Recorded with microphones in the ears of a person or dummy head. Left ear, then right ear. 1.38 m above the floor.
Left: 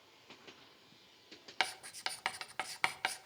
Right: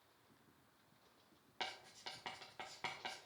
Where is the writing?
50° left (ahead or behind), 0.6 m.